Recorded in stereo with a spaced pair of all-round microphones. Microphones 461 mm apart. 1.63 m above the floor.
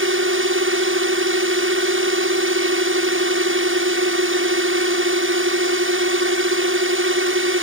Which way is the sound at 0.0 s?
25° right (ahead or behind).